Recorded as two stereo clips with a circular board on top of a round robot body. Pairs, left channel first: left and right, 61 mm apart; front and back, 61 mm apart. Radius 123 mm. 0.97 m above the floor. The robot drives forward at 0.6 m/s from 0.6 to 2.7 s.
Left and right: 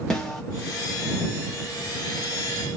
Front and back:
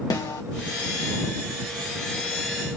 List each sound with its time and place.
0.1 s a snare drum: 10° left, 1.2 m